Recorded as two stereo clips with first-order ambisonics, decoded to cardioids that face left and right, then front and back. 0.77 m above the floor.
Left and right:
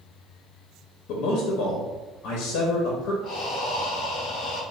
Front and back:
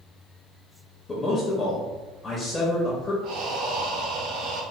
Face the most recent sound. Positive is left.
turn(degrees=145)